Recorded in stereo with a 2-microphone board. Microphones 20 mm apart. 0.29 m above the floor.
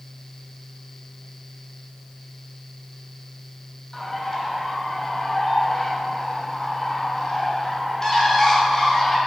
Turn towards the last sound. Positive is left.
turn(degrees=20)  # may be behind; listen again after turning